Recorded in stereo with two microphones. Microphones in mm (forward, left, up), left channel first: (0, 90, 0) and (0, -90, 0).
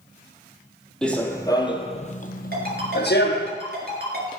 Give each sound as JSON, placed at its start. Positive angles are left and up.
{"t": 1.0, "sound": "running footsteps", "side_deg": 5, "distance_m": 1.1}
{"t": 2.5, "sound": "a ringtone", "side_deg": -60, "distance_m": 4.0}